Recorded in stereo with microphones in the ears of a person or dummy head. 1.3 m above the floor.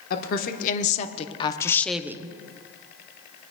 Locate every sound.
0.1 s a woman speaking: 50° left (ahead or behind), 1.3 m; by 2.4 s 25° right (ahead or behind), 0.6 m